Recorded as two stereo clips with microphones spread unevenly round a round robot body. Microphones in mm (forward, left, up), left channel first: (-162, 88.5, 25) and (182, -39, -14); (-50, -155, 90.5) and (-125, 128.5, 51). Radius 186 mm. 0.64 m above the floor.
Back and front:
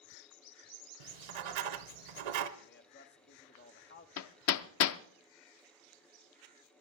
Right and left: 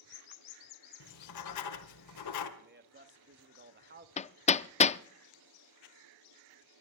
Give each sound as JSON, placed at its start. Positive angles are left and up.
{"t": 1.0, "sound": "writing", "azimuth_deg": -35, "distance_m": 1.1}
{"t": 2.6, "sound": "a man speaking", "azimuth_deg": 105, "distance_m": 1.1}
{"t": 4.2, "sound": "hammering", "azimuth_deg": -145, "distance_m": 0.5}